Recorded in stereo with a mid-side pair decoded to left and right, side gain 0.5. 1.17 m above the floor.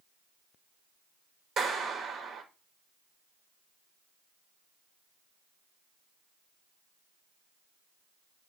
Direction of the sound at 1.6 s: 50° right.